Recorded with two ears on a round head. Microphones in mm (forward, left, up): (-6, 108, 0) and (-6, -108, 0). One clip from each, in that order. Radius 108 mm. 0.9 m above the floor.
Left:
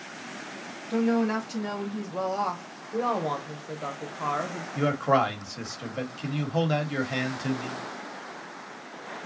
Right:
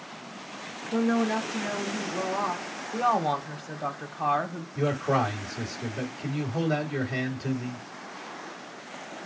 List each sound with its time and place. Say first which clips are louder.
0.9 s a woman speaking: even; 40° left (ahead or behind), 1.8 m
2.9 s a woman speaking: right 3 dB; 10° right (ahead or behind), 0.9 m
4.8 s a man speaking: left 3 dB; 80° left, 2.0 m